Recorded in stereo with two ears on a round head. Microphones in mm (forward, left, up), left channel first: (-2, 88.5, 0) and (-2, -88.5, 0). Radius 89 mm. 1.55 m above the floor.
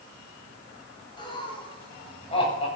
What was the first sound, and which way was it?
Laughter, 25° left (ahead or behind).